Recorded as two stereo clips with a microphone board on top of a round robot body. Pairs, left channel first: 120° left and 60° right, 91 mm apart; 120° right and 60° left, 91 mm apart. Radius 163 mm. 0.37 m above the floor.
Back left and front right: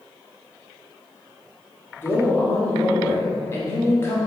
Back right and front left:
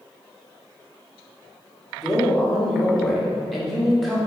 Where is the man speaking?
155° left, 1.5 m.